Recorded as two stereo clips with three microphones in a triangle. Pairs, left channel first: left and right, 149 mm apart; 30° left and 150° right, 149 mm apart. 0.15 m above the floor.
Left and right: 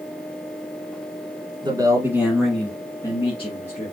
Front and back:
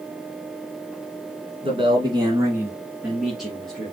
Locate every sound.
1.6 s a man speaking: 130° right, 1.5 m; by 3.9 s 110° left, 1.9 m